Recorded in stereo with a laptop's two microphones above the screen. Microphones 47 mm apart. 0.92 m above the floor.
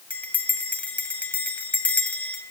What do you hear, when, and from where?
0.1 s a bell: 40° left (ahead or behind), 1.0 m